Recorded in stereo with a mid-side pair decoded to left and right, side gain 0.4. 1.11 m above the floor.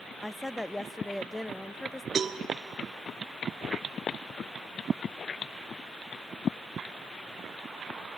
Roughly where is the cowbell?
Ahead right.